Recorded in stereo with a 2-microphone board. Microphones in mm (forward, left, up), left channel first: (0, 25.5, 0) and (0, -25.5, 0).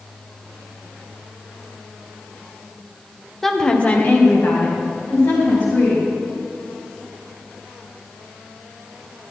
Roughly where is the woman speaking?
Centre.